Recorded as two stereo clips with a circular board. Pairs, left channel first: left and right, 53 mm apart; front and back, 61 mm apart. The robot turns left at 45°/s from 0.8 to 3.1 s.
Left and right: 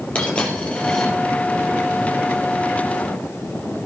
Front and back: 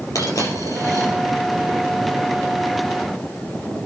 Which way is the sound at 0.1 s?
20° left.